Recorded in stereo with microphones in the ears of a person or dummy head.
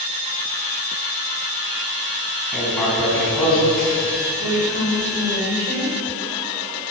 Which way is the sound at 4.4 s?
50° right (ahead or behind).